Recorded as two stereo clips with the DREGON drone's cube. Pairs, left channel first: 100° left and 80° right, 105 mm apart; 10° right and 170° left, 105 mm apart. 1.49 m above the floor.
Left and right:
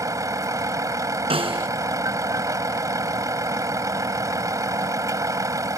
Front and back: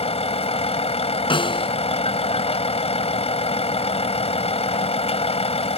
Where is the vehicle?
20° right.